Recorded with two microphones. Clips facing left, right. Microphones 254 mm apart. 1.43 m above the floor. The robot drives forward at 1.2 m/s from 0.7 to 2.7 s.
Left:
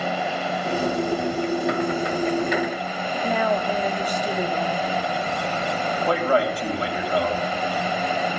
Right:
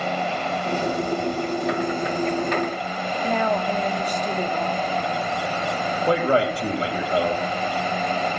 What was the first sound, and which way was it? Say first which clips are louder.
A woman speaking: even; 10° left (ahead or behind).